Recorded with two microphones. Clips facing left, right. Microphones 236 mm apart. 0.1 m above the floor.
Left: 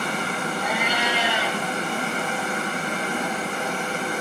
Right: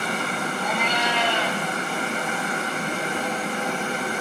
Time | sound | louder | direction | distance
0.6 | a cat meowing | right 1 dB | 10° left (ahead or behind) | 5 m